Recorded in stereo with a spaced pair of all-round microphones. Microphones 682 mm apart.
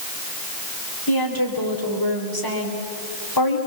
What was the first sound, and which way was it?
A woman speaking, 30° left (ahead or behind).